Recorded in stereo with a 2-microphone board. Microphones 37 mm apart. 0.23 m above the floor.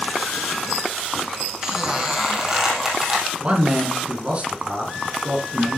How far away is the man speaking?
About 2 m.